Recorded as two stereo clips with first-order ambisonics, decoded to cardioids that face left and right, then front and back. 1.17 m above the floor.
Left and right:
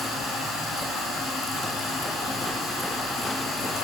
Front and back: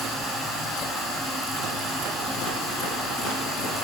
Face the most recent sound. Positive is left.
turn(degrees=165)